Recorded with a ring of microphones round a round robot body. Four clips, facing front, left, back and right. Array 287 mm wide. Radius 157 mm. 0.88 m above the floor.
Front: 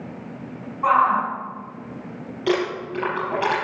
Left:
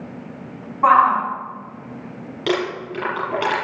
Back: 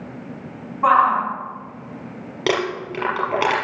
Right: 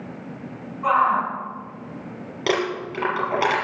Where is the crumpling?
170° right, 5.5 m.